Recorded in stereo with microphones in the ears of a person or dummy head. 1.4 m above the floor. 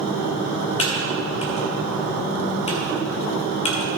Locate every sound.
0.8 s typing on a keyboard: 35° left (ahead or behind), 1.7 m